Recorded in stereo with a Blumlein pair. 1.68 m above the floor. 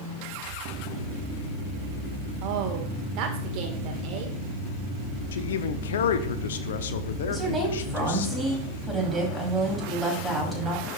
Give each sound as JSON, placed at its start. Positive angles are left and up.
{"t": 2.4, "sound": "a woman speaking", "azimuth_deg": -40, "distance_m": 1.8}
{"t": 5.3, "sound": "a man speaking", "azimuth_deg": 60, "distance_m": 0.8}
{"t": 7.3, "sound": "a woman speaking", "azimuth_deg": 0, "distance_m": 3.5}